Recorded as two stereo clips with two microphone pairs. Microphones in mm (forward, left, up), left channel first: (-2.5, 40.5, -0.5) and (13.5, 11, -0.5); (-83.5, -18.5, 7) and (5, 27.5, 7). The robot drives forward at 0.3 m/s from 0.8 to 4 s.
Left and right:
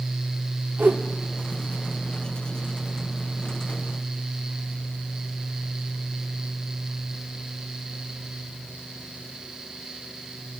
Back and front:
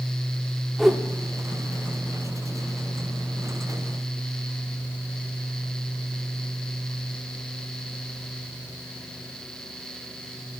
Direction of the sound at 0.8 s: 65° right.